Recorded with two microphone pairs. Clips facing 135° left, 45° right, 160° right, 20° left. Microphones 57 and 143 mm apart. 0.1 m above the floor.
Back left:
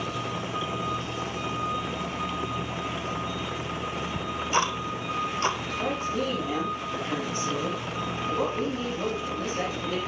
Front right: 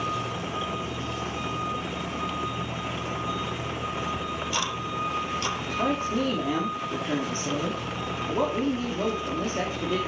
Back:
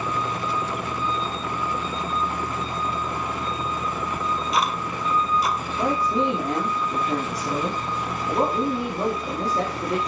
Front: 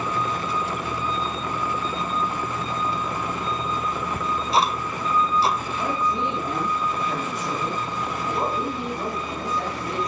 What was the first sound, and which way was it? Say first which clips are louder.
Ticking: back left 3 dB, front 3 dB; 80° left.